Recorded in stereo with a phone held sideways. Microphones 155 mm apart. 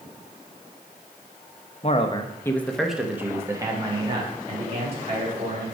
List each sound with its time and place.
1.8 s a man speaking: 45° left (ahead or behind), 0.8 m; by 5.7 s 45° right (ahead or behind), 2.5 m